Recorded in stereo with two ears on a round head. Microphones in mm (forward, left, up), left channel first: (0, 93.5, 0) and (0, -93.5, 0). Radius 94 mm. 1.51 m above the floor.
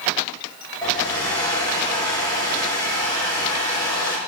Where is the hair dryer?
20° left (ahead or behind), 5 m.